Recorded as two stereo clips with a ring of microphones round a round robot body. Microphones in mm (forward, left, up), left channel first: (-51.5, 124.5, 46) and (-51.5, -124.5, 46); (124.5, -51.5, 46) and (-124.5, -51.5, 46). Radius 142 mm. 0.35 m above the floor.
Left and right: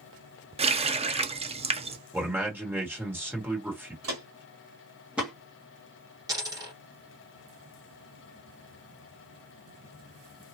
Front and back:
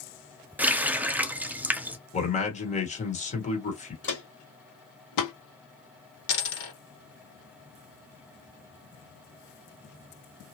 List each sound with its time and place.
0.6 s a running tap: 105° right, 0.6 m
2.1 s a man speaking: 15° right, 1.4 m
4.0 s footsteps: 45° right, 1.7 m; by 5.3 s 5° left, 1.2 m
6.3 s a dropped coin: 15° right, 1.5 m